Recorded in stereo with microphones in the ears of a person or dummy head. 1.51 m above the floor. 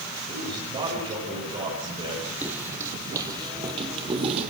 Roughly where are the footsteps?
Centre.